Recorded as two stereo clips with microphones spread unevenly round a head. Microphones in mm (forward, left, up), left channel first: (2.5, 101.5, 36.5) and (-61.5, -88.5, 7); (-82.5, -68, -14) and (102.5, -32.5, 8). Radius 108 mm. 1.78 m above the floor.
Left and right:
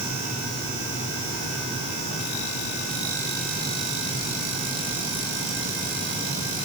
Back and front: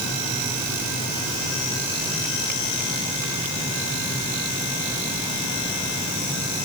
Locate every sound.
Only background noise.